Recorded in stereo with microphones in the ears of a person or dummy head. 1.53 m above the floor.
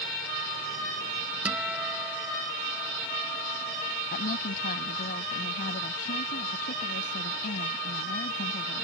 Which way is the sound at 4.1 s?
45° left (ahead or behind).